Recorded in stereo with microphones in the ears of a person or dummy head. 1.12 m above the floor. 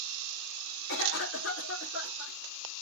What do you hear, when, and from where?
0.9 s a cough: 80° left, 2 m